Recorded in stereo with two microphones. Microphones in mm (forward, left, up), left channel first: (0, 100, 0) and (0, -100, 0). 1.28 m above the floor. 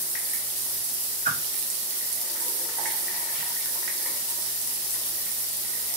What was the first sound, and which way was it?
A whoosh, 50° right (ahead or behind).